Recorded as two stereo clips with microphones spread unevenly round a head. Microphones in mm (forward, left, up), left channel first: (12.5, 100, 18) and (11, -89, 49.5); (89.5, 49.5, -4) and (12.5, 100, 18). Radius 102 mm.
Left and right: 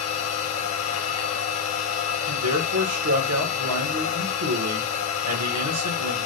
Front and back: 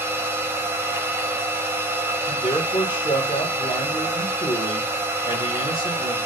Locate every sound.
0.0 s a machine running: 80° left, 1.1 m
2.3 s a man speaking: 100° right, 1.0 m